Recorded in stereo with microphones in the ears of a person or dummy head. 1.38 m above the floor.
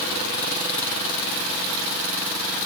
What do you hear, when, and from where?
Only background noise.